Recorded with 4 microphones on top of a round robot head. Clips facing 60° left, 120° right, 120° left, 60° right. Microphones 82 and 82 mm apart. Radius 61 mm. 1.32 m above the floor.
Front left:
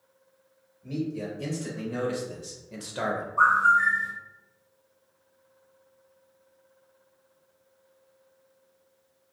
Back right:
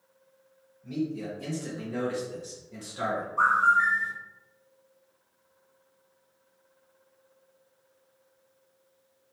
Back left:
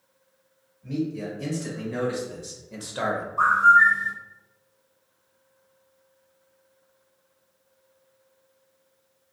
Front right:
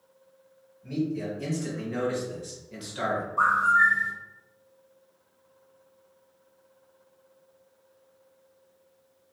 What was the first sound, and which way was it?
A man speaking, 30° left.